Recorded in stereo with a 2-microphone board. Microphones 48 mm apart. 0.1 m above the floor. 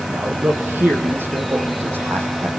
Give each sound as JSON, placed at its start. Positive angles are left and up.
{"t": 0.1, "sound": "a man speaking", "side_deg": -50, "distance_m": 4.0}